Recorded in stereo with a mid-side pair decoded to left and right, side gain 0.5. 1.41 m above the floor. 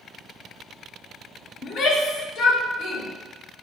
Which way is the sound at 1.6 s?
55° left.